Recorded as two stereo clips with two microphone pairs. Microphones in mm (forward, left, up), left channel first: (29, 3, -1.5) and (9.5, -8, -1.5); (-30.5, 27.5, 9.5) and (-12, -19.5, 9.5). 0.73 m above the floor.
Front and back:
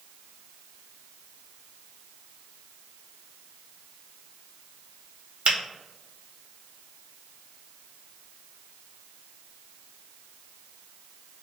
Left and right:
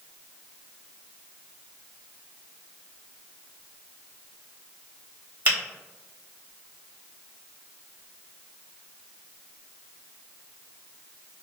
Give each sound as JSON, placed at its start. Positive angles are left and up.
{"t": 5.5, "sound": "a finger snap", "azimuth_deg": -120, "distance_m": 1.4}